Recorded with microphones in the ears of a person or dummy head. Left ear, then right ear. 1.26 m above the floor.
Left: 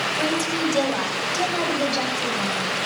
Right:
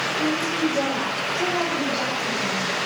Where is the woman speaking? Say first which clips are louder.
Even; 75° left (ahead or behind), 4 m; by 2.7 s 65° left (ahead or behind), 6 m.